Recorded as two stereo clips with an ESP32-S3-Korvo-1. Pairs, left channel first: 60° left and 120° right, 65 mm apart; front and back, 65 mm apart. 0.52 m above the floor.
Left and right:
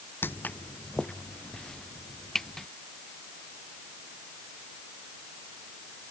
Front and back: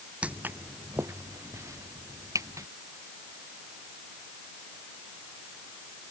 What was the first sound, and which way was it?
Footsteps, 115° left.